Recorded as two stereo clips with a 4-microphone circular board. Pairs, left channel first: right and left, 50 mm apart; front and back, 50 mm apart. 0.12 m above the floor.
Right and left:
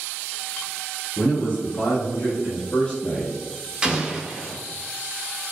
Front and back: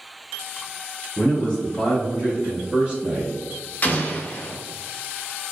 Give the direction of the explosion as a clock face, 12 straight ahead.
11 o'clock.